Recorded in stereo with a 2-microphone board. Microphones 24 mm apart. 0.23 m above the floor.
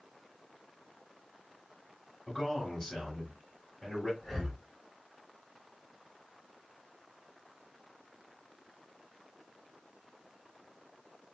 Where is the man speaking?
10° left (ahead or behind), 2.5 m.